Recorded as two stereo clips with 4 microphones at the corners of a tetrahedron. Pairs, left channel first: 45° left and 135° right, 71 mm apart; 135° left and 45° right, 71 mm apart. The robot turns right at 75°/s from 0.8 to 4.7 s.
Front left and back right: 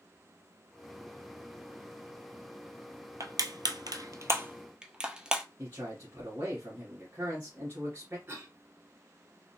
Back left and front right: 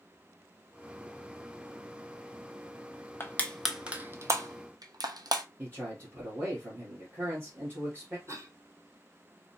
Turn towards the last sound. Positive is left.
turn(degrees=-85)